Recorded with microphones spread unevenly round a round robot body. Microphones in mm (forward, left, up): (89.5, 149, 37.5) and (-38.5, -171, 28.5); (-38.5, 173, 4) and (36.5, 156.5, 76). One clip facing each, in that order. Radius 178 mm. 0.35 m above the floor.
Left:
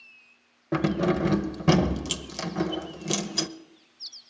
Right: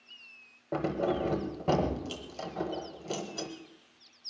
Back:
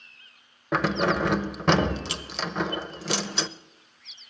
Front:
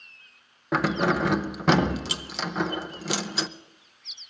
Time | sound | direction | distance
0.7 | keys jangling | 110° left | 0.8 m